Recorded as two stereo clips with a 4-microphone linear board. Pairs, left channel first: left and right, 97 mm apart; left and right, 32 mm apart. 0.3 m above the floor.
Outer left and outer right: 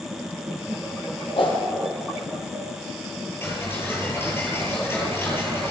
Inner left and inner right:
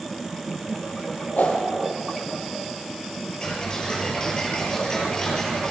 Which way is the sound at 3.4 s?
25° left (ahead or behind).